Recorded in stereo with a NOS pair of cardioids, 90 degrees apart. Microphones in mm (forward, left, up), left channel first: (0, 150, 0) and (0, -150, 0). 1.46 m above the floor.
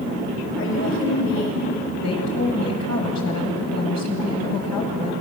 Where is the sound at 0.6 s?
45° left, 6 m.